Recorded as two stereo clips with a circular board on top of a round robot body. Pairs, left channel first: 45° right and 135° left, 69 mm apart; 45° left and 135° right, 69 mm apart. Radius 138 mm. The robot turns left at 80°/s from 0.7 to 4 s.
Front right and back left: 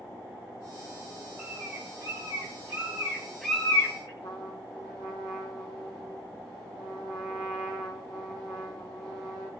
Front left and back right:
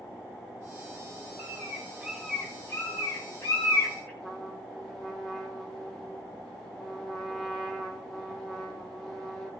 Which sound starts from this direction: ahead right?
A trumpet, at 4.2 s.